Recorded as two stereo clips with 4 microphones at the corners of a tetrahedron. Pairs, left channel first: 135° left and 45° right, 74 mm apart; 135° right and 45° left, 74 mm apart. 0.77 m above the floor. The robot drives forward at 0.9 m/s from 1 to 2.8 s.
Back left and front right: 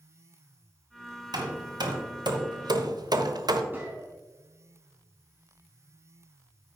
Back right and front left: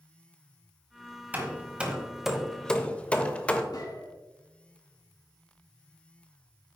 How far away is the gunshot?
About 3.5 m.